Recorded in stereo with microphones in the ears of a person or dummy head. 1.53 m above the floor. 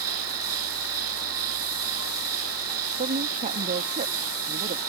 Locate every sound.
0.0 s an insect: 85° right
3.0 s a woman speaking: 35° right (ahead or behind)